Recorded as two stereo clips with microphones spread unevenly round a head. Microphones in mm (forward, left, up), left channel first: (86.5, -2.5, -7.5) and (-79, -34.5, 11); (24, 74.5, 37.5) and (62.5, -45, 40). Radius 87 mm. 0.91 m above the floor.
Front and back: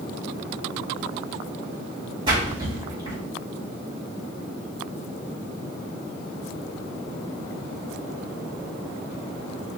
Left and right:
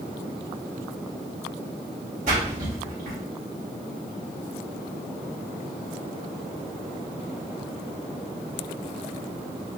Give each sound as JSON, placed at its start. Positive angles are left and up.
{"t": 2.3, "sound": "a splash", "azimuth_deg": -105, "distance_m": 1.8}